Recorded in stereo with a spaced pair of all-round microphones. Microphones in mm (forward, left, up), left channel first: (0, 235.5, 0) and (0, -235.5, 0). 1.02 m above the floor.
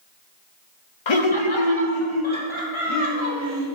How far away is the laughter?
About 0.5 m.